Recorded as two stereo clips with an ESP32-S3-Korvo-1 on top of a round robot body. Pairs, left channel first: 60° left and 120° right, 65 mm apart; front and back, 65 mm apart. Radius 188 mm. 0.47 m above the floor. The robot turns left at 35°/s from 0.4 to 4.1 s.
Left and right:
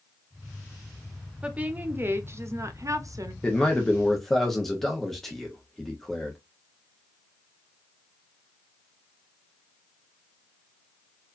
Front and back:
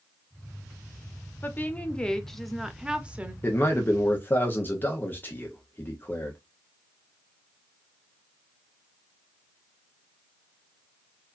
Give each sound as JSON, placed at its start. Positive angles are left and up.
{"t": 1.4, "sound": "a woman speaking", "azimuth_deg": -50, "distance_m": 1.2}
{"t": 3.4, "sound": "a man speaking", "azimuth_deg": 0, "distance_m": 1.3}